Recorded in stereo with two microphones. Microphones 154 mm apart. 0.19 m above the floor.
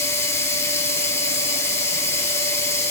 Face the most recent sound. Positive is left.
turn(degrees=15)  # may be behind; listen again after turning